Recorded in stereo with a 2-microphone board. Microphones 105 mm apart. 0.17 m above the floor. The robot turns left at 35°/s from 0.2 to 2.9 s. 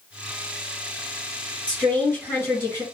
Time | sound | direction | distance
1.7 | a woman speaking | 155° left | 1.5 m